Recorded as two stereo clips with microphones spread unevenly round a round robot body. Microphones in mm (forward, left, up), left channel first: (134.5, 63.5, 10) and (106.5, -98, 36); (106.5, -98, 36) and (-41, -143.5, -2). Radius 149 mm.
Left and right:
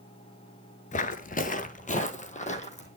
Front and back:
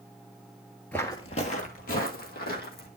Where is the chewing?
I don't hear chewing.